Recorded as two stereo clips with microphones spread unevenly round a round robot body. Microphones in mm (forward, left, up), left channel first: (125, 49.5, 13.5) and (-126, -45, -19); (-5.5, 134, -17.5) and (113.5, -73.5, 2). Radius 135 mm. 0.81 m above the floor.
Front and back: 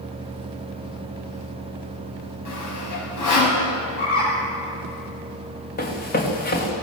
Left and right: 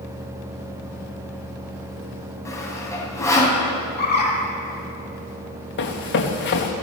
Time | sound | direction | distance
2.5 | sawing | 40° left | 6 m
4.0 | a bird | 70° left | 9.5 m
5.8 | running footsteps | 75° left | 4 m